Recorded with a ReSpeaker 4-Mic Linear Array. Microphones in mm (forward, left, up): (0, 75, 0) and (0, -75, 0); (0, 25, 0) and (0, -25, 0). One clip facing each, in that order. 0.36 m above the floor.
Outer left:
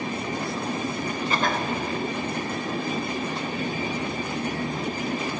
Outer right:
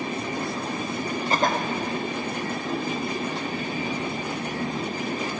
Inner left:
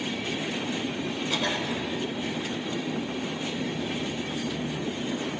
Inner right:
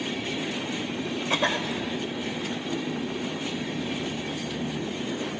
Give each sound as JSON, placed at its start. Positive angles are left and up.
{"t": 1.3, "sound": "a cough", "side_deg": -40, "distance_m": 1.0}